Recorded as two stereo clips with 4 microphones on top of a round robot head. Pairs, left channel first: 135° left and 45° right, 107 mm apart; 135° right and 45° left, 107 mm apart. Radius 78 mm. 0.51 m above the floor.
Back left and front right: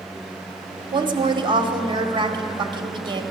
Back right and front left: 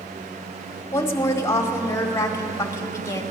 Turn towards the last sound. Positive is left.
turn(degrees=-75)